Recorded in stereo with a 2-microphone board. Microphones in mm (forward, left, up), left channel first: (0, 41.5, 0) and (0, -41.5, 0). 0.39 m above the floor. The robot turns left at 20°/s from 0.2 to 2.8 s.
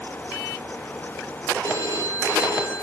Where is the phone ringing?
55° right (ahead or behind), 6 m; by 2.8 s 35° right (ahead or behind), 6 m.